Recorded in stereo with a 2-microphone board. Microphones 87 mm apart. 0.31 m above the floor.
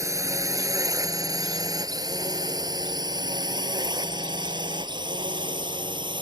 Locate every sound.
0.0 s a drone: 35° right (ahead or behind); by 6.2 s 65° right (ahead or behind)